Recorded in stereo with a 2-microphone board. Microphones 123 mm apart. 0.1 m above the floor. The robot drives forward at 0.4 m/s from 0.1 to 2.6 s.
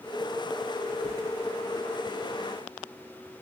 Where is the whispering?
25° left (ahead or behind), 1.2 m.